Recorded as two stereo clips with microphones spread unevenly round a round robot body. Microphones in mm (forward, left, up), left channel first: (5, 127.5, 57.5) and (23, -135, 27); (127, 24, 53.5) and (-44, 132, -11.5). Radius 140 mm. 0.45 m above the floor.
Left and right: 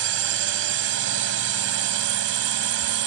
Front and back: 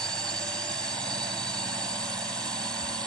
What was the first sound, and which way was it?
A drone, 125° right.